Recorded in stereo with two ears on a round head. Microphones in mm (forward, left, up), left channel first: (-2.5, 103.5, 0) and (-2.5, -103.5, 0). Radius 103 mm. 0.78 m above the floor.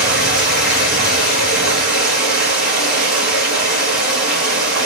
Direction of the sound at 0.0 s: Centre (ahead or behind).